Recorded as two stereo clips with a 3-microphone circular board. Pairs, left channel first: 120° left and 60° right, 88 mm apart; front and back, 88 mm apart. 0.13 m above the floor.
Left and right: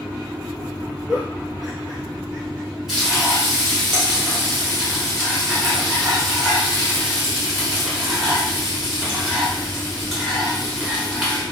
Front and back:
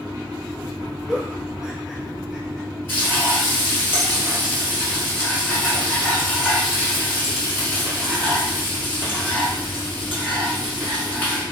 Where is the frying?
25° left, 1.4 m.